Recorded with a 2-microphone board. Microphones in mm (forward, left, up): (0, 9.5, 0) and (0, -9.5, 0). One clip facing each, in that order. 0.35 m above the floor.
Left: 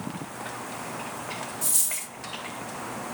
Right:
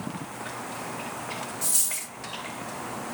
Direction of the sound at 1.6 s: 30° right (ahead or behind).